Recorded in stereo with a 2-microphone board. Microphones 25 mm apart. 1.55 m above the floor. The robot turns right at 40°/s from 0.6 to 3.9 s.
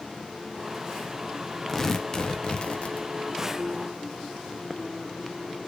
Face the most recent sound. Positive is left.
turn(degrees=95)